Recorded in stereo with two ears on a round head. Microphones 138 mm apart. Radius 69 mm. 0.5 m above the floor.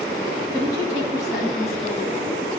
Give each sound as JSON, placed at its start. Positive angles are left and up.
{"t": 0.5, "sound": "a woman speaking", "side_deg": 20, "distance_m": 3.5}